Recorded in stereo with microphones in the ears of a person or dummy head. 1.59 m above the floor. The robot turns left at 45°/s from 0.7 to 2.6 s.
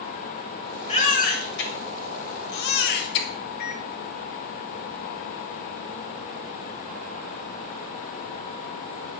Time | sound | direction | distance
0.9 | a baby crying | 45° left (ahead or behind) | 1.3 m
3.6 | a microwave | 50° left (ahead or behind) | 0.9 m